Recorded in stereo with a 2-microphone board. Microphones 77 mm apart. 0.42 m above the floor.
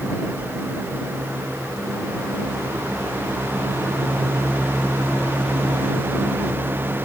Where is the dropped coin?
No dropped coin in this recording.